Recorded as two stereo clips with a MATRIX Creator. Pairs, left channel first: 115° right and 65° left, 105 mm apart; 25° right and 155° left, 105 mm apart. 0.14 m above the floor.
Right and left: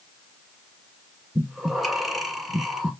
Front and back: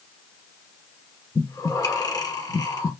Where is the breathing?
20° right, 1.0 m.